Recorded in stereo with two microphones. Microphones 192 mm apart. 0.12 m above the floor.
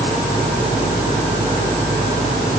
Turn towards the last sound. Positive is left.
No sound to turn to.